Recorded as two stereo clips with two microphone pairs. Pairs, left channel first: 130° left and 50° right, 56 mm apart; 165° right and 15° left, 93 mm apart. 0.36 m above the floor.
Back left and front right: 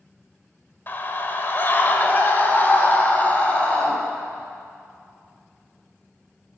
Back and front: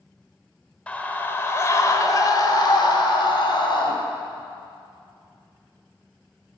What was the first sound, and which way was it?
A scream, 125° left.